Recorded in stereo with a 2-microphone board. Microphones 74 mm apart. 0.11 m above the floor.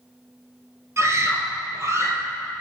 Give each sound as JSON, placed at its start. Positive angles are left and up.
{"t": 1.0, "sound": "a scream", "side_deg": -40, "distance_m": 2.0}